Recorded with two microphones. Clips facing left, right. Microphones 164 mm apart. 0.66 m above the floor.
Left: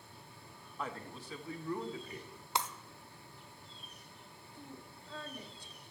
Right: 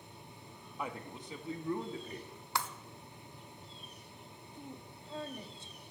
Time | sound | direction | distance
0.8 | a man speaking | 10° right (ahead or behind) | 0.9 m
2.5 | breaking glass | 20° left (ahead or behind) | 0.7 m
4.5 | a woman speaking | 20° right (ahead or behind) | 1.0 m